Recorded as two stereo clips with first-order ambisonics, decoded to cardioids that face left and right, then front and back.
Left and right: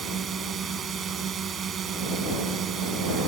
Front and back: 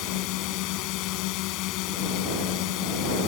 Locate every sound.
0.0 s a drone: 25° right; by 3.3 s 30° right